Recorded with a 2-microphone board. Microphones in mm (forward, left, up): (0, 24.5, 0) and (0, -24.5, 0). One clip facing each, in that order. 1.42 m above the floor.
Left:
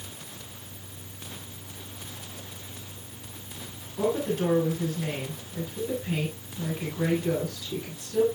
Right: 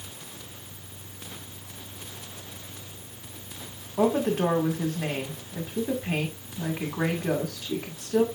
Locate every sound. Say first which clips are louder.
4.0 s a woman speaking: right 3 dB; 65° right (ahead or behind), 2 m